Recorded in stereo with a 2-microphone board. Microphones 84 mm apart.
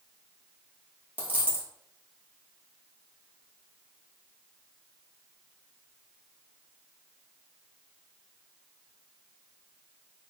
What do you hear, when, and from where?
1.2 s a dropped coin: 25° right (ahead or behind), 1.3 m